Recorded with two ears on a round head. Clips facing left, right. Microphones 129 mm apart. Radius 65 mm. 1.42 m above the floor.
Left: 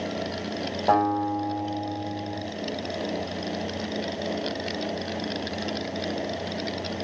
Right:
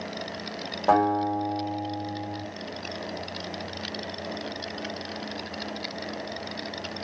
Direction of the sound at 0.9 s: 5° left (ahead or behind).